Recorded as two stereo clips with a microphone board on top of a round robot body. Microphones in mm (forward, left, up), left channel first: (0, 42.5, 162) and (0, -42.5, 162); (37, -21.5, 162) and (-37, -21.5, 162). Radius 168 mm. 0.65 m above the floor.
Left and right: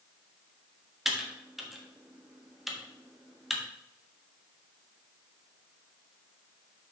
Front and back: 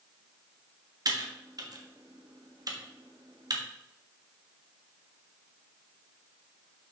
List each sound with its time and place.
1.1 s typing on a keyboard: 175° right, 1.5 m